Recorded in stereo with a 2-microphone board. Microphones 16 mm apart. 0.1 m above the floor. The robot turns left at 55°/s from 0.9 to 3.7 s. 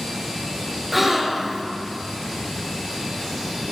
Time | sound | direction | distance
0.9 | a gasp | 20° right | 1.0 m